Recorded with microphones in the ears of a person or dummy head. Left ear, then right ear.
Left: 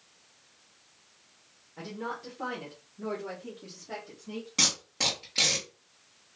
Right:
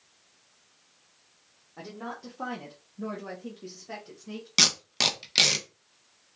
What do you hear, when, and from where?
1.8 s a woman speaking: 35° right (ahead or behind), 1.2 m; by 4.5 s 85° right, 1.5 m
4.6 s tape being pulled: 60° right (ahead or behind), 0.8 m